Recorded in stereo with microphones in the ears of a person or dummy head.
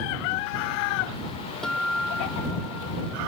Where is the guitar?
5° left (ahead or behind).